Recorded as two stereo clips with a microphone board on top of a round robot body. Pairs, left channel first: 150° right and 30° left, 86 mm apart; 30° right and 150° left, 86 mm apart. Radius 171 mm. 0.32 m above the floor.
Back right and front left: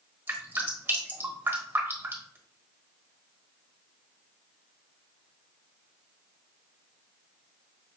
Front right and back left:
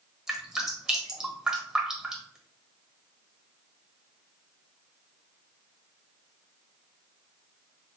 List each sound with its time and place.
0.3 s dripping: 70° left, 1.5 m